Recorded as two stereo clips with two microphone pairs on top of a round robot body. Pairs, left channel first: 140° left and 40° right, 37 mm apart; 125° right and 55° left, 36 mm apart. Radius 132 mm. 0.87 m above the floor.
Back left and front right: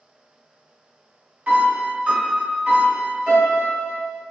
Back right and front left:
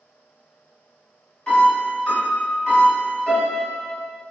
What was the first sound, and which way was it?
A piano, 60° right.